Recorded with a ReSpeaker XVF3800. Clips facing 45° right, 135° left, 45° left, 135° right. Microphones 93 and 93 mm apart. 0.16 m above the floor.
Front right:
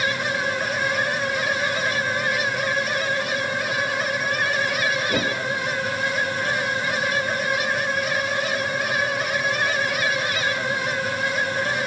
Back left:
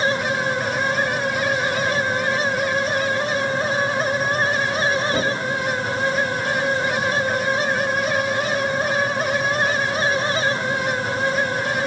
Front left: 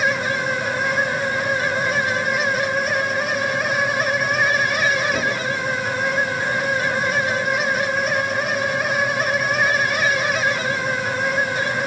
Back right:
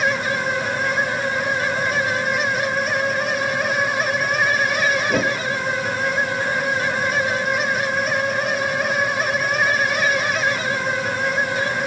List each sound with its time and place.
5.1 s a whoosh: 115° right, 5 m